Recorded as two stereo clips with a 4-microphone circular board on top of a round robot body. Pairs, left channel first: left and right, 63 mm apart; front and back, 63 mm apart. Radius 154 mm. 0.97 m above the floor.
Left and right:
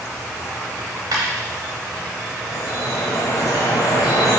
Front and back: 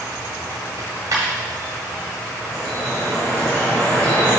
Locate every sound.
0.8 s a dropped coin: 130° right, 0.6 m
2.4 s dripping: 70° left, 0.9 m